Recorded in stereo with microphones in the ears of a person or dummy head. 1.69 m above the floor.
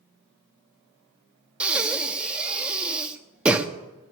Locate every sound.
1.6 s breathing: 5° right (ahead or behind), 0.7 m